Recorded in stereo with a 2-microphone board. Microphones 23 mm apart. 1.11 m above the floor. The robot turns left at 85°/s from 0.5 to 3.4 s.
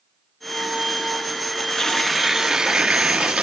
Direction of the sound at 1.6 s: 50° left.